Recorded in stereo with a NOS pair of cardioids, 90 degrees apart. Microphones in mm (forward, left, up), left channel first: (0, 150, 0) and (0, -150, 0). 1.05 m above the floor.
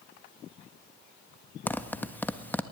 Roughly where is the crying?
I don't hear crying.